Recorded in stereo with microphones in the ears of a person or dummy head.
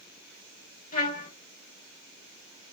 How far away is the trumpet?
About 0.8 m.